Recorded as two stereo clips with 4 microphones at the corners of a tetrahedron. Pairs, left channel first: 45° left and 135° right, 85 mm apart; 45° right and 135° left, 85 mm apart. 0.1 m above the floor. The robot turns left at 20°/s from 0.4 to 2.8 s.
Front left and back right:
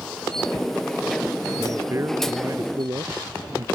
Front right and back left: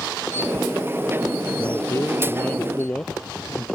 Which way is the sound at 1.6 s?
85° right.